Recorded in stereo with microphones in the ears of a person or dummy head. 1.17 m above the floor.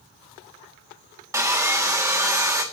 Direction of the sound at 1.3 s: 10° right (ahead or behind).